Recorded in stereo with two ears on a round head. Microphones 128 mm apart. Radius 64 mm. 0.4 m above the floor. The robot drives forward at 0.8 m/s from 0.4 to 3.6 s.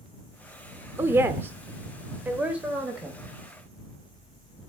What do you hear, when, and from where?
1.0 s a woman speaking: 15° right (ahead or behind), 0.9 m; by 3.2 s 5° right (ahead or behind), 1.7 m